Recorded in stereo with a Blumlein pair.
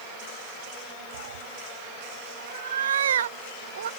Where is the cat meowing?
65° right.